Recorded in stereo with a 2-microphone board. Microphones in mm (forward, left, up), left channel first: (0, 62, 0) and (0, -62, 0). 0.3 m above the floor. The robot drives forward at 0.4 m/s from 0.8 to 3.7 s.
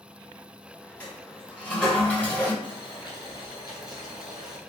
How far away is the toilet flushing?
About 2 m.